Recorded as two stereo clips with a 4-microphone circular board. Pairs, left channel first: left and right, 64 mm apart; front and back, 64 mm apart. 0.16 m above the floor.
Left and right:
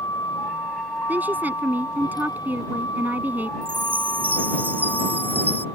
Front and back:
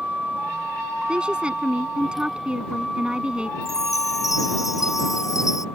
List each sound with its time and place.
0.0 s a vehicle: 105° left; by 5.8 s 75° left
1.1 s a woman speaking: 120° right
3.6 s a chime: 30° right